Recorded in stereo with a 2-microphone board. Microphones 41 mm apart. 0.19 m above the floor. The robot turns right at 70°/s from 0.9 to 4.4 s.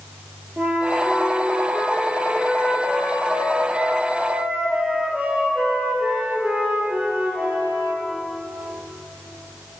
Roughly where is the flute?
Ahead right.